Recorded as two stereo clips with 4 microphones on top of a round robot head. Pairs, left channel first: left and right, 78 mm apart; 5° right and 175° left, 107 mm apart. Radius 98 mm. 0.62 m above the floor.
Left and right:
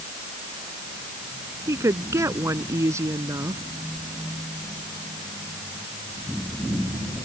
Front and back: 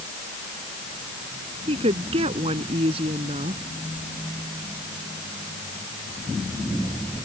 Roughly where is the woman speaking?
Behind right.